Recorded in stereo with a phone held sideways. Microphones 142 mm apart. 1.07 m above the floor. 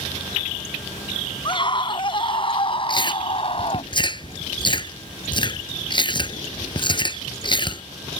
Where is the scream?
35° left (ahead or behind); by 3.9 s 45° left (ahead or behind).